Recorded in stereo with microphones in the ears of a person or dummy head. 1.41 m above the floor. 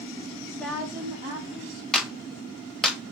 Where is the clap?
Centre (ahead or behind), 1.0 m.